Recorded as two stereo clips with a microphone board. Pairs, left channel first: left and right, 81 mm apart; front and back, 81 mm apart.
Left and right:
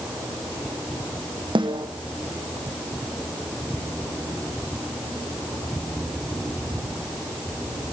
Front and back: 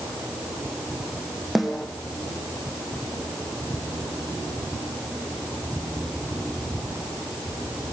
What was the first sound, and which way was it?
A snare drum, 90° right.